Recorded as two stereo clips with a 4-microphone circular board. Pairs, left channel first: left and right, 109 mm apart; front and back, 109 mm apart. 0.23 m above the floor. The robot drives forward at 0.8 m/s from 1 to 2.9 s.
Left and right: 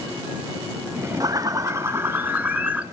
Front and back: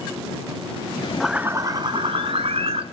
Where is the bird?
90° right, 0.6 m; by 2.8 s 165° right, 1.4 m.